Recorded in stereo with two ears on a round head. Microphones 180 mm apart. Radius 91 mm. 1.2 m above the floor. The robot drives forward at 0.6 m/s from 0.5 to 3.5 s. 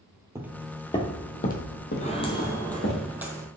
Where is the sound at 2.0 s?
35° left (ahead or behind), 2.0 m; by 3.5 s 15° right (ahead or behind), 2.5 m.